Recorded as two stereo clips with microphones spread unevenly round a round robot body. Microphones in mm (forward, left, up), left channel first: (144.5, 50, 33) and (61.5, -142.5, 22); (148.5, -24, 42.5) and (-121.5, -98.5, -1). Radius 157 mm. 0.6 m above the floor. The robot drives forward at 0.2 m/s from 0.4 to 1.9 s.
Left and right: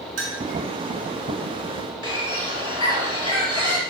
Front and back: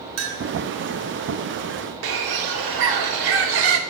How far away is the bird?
About 0.6 m.